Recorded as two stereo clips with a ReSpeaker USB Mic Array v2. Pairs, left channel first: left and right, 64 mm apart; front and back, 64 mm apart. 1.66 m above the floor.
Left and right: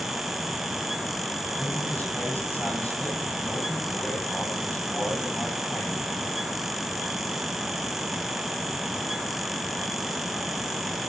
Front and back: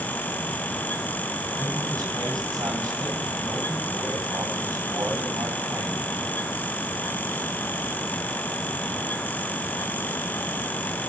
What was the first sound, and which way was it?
A man speaking, 155° left.